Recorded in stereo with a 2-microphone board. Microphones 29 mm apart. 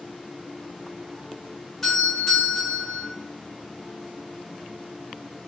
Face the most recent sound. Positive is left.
turn(degrees=10)  # may be behind; listen again after turning